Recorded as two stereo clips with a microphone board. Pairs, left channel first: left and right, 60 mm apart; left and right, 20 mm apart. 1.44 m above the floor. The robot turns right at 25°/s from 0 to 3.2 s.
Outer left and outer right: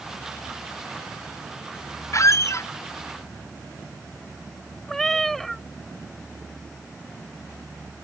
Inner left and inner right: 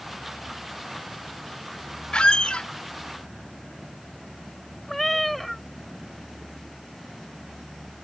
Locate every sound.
2.1 s a squeak: 50° left (ahead or behind)
4.9 s a cat meowing: 5° left (ahead or behind)